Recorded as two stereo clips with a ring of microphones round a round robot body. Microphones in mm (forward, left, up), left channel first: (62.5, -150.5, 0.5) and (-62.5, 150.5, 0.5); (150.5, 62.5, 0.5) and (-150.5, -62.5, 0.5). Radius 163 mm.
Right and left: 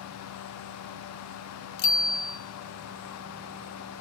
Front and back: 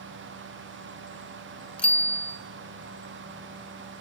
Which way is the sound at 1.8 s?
65° right.